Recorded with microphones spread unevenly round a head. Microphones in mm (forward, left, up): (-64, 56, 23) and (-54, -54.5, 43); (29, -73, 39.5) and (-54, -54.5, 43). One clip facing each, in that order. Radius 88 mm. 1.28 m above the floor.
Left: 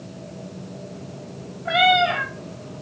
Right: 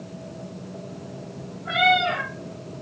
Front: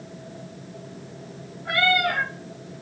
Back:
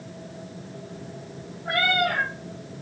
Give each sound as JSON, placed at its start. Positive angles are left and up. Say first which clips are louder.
{"t": 1.6, "sound": "a cat meowing", "louder": "left 3 dB, front 1 dB", "azimuth_deg": 20, "distance_m": 4.0}